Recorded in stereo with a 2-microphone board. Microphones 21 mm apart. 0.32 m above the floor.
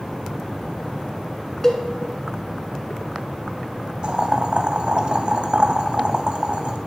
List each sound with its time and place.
1.6 s a cowbell: 25° left (ahead or behind), 0.9 m
4.0 s boiling: 45° right (ahead or behind), 0.6 m